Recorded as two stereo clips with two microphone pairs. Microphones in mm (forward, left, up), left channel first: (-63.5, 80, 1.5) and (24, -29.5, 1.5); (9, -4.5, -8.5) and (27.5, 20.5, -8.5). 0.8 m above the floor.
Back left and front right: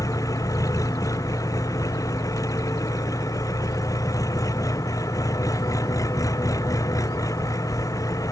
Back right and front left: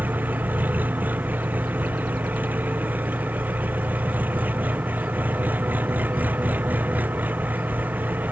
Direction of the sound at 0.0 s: 60° left.